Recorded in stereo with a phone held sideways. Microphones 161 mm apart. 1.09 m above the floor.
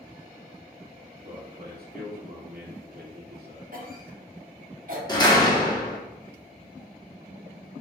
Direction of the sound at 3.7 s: 60° right (ahead or behind).